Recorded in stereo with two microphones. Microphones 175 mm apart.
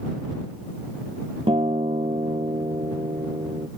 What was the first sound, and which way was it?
A guitar, 35° right (ahead or behind).